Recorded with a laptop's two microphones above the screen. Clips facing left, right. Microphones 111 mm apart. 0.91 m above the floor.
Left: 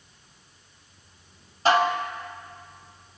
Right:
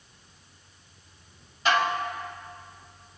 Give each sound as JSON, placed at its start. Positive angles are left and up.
{"t": 1.6, "sound": "dishes clattering", "side_deg": 40, "distance_m": 1.1}